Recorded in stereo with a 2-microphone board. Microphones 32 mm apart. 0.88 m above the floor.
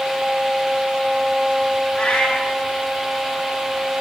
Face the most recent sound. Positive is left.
turn(degrees=50)  # may be behind; listen again after turning